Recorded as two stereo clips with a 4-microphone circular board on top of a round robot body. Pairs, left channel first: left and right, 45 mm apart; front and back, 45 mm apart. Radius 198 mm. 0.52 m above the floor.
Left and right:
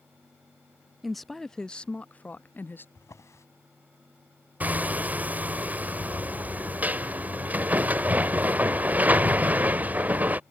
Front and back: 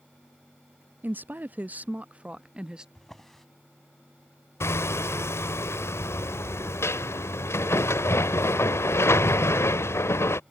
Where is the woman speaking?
175° right; by 2.9 s 110° left.